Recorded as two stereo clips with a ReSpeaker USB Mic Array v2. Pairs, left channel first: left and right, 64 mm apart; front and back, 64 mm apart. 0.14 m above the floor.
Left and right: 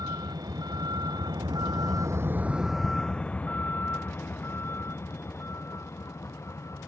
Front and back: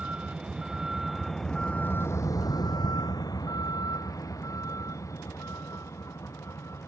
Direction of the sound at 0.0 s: 110° right.